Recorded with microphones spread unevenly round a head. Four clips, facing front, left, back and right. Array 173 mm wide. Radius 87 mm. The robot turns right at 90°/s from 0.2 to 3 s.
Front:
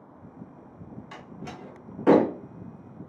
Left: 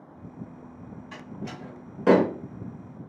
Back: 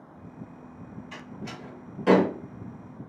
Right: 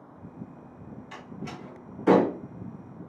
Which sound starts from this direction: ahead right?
A door slam, at 1.1 s.